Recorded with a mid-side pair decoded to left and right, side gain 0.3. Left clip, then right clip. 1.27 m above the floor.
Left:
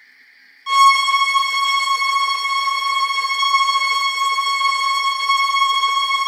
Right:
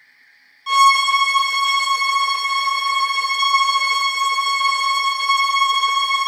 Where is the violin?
5° left, 0.6 m.